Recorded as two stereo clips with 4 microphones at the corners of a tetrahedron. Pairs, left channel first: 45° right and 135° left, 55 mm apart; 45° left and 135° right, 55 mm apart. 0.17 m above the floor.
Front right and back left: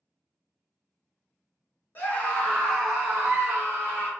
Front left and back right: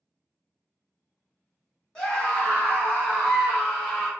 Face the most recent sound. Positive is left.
turn(degrees=105)